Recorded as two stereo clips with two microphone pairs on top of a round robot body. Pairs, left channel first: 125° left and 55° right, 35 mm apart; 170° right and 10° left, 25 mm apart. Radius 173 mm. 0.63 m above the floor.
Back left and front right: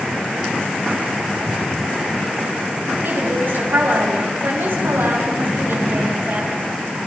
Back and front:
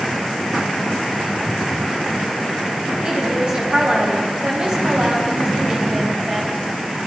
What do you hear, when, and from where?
3.0 s a woman speaking: 35° right, 5 m